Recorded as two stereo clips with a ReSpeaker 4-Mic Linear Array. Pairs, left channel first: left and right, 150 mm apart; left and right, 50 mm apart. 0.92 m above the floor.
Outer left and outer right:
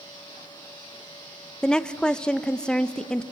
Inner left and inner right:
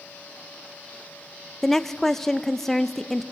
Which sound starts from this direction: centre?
A woman speaking, at 1.6 s.